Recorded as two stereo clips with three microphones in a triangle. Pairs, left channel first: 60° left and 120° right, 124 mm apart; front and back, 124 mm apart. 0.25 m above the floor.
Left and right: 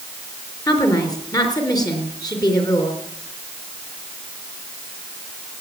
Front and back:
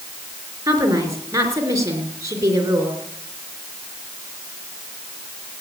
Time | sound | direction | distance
0.7 | a woman speaking | 115° left | 4 m